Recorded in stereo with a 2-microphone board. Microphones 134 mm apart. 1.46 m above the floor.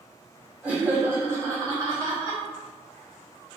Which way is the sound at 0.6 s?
10° right (ahead or behind).